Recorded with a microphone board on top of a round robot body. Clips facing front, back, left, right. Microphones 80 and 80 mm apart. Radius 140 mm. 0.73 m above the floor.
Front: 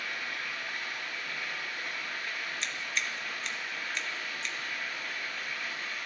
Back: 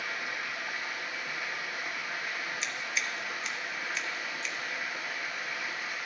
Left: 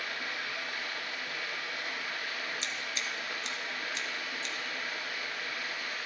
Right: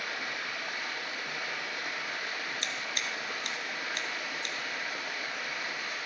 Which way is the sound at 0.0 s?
105° right.